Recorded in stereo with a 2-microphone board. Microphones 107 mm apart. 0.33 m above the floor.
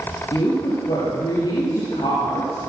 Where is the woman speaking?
50° left (ahead or behind), 6.5 m.